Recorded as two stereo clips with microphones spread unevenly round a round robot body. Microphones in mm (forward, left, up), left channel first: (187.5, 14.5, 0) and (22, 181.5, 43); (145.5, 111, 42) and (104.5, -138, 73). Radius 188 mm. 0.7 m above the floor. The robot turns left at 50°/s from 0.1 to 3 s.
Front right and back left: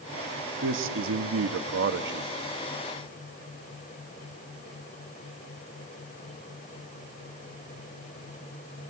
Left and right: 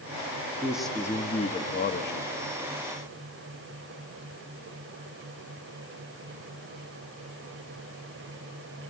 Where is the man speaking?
175° left, 0.8 m; by 2.3 s 90° left, 0.8 m.